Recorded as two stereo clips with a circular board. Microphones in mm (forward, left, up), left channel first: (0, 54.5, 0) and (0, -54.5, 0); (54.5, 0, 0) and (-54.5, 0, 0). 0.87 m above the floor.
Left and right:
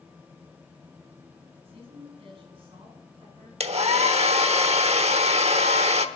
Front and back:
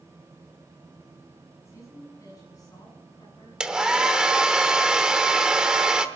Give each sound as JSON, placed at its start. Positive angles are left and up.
{"t": 1.6, "sound": "a woman speaking", "azimuth_deg": -60, "distance_m": 7.5}
{"t": 3.6, "sound": "a hair dryer", "azimuth_deg": -95, "distance_m": 1.0}